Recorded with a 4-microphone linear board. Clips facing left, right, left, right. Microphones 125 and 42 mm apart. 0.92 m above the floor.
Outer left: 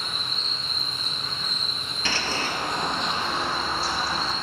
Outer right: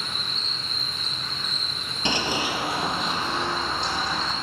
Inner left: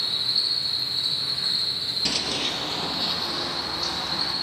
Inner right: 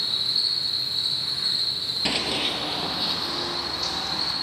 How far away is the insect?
About 5 m.